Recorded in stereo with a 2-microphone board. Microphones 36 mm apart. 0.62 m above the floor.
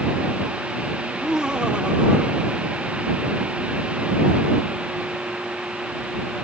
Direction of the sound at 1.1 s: 15° right (ahead or behind).